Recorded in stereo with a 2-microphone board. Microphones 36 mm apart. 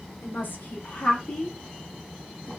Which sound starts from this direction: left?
A woman speaking, at 0.2 s.